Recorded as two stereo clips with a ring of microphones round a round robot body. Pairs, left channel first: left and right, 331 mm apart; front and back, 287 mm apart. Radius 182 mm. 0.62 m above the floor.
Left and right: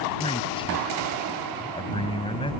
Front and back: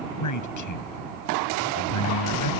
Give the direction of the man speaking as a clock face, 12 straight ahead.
12 o'clock.